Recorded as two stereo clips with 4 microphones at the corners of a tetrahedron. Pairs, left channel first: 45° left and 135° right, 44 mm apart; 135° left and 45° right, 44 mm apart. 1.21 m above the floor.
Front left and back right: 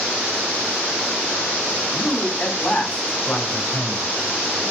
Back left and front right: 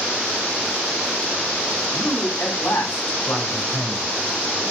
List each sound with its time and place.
1.9 s a man speaking: 100° left, 8 m; by 4.1 s 110° left, 6 m